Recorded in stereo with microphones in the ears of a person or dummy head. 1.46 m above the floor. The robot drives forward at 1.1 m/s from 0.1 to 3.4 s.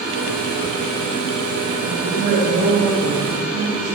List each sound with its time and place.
1.9 s a woman speaking: 50° right (ahead or behind), 8 m; by 3.9 s 45° right (ahead or behind), 9 m